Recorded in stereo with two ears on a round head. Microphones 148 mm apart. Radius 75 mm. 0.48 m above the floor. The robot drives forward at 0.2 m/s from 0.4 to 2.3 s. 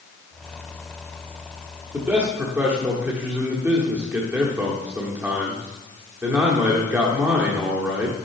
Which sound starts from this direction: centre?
A man speaking, at 1.9 s.